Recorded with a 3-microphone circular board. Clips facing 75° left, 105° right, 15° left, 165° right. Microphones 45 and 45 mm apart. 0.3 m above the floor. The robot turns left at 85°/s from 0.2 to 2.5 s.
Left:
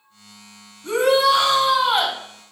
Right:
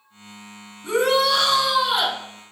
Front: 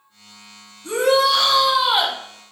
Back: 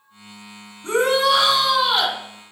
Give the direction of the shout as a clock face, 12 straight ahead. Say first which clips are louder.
Left 2 dB, front 1 dB; 6 o'clock.